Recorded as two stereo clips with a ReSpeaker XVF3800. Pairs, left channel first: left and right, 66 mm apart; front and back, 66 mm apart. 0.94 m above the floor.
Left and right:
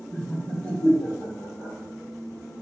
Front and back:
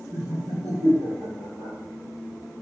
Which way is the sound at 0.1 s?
170° left.